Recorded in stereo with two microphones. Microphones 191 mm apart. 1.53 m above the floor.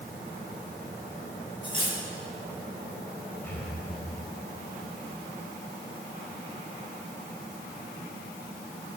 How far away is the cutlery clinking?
About 6.5 m.